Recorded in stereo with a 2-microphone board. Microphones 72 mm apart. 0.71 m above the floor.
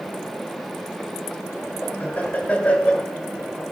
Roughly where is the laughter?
Left.